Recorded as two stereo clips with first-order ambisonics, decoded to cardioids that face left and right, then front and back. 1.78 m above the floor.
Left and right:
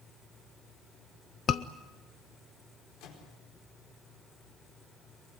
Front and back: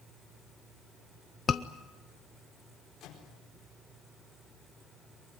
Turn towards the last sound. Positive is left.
turn(degrees=55)